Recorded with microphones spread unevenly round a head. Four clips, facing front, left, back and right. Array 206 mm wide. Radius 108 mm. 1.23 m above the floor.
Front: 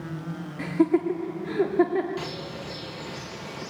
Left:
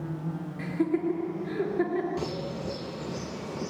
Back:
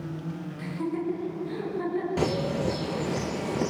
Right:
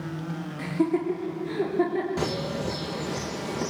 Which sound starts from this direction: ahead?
Laughter, at 0.6 s.